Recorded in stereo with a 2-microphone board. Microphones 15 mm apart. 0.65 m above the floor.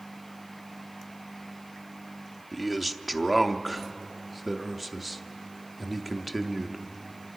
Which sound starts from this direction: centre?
A man speaking, at 2.5 s.